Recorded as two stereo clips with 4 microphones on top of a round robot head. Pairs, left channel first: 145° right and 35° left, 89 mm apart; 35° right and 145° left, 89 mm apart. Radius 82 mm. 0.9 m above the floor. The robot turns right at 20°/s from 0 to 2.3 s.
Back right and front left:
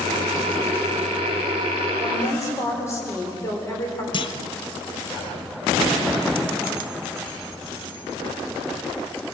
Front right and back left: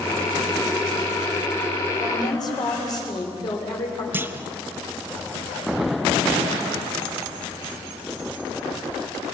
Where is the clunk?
155° right, 0.9 m.